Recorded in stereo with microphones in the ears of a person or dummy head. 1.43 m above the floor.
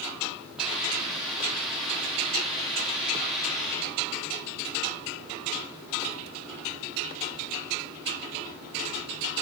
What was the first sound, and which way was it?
A hiss, centre (ahead or behind).